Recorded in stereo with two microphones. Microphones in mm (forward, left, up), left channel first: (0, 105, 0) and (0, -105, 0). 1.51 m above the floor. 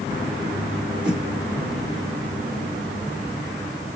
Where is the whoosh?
5° right (ahead or behind), 2.0 m.